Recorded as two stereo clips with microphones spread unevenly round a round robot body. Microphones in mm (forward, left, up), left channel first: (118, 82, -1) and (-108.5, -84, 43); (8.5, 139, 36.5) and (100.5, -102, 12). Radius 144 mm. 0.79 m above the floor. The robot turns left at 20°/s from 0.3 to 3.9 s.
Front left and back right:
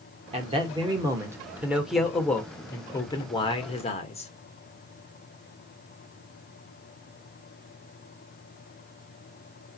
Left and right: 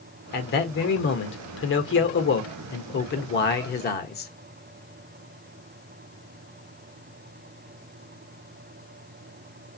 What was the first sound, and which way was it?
A man speaking, 150° left.